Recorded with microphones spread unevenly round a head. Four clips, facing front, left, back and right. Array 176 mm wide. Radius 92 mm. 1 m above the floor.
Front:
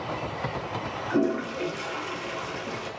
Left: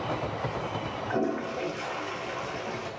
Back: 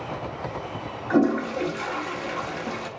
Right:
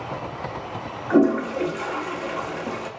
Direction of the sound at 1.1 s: 95° right.